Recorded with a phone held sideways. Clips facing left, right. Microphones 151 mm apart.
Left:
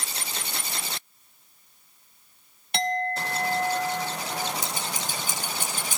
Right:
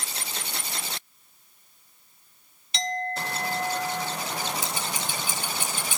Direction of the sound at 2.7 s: 55° left (ahead or behind).